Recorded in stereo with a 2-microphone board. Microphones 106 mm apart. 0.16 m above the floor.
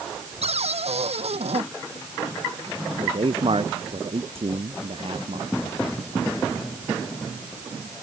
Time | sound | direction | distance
0.4 | a cupboard door | 80° right | ?
3.0 | a man speaking | 60° right (ahead or behind) | ?